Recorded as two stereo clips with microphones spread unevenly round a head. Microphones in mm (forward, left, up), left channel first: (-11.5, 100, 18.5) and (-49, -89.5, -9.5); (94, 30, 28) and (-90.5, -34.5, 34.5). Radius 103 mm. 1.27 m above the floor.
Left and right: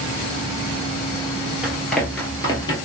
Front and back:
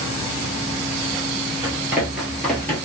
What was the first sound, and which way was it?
Running footsteps, 160° left.